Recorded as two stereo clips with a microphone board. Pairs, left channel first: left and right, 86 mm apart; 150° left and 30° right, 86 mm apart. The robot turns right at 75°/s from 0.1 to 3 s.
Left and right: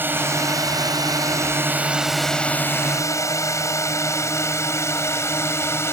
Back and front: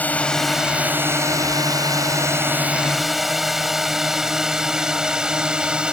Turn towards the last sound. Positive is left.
turn(degrees=45)